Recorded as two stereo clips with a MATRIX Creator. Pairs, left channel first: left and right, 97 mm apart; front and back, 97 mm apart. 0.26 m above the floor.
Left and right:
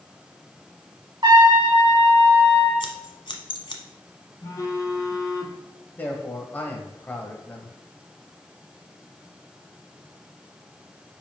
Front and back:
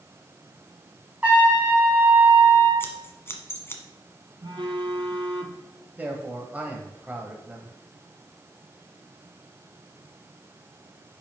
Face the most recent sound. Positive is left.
turn(degrees=130)